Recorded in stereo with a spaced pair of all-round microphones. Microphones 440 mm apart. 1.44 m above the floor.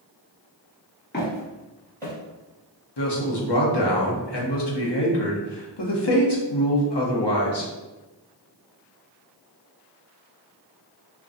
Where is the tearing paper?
I don't hear tearing paper.